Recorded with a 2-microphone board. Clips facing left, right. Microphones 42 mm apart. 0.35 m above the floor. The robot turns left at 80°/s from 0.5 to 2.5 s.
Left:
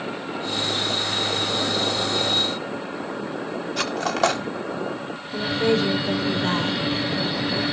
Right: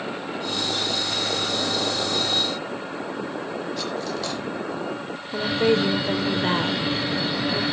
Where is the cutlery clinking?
65° left (ahead or behind), 1.2 m.